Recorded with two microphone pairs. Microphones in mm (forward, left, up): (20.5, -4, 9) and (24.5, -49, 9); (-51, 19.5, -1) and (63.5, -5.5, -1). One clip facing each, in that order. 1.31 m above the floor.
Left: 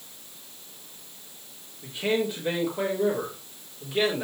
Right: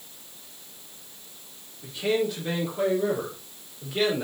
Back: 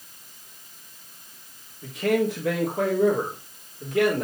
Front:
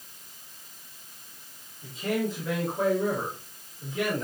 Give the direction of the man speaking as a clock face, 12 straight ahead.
6 o'clock.